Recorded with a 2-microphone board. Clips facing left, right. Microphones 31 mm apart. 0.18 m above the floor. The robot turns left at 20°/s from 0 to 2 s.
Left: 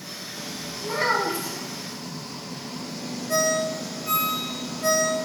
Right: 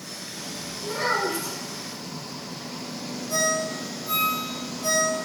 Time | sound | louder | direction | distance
0.8 | a child speaking | left 2 dB | 30° left (ahead or behind) | 1.0 m
3.3 | a ringtone | left 2 dB | 50° left (ahead or behind) | 1.8 m